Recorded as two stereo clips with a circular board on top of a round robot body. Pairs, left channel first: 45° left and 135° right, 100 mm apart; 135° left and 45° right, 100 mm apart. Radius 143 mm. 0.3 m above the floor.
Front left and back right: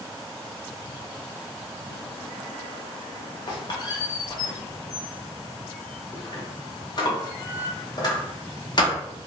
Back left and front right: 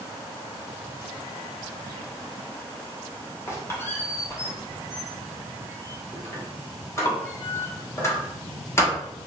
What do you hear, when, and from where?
3.5 s a squeak: 75° left, 0.9 m